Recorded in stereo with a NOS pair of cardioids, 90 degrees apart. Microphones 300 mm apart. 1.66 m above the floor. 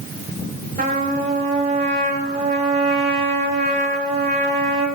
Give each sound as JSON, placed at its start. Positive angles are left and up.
{"t": 0.8, "sound": "a trumpet", "azimuth_deg": -30, "distance_m": 8.0}